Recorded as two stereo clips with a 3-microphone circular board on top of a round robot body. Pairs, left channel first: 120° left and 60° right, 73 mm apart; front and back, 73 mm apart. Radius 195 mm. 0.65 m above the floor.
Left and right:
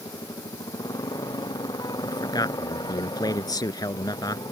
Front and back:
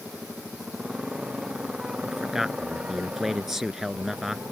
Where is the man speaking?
95° left.